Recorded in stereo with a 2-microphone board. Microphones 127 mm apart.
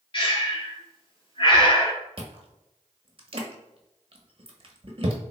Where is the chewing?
45° right (ahead or behind), 0.7 m.